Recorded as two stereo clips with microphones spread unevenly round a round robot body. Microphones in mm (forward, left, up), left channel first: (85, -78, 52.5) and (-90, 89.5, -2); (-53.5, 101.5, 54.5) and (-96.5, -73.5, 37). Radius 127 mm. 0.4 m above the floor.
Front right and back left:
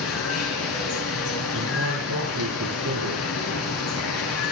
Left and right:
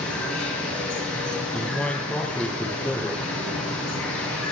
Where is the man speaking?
160° left, 7.5 m.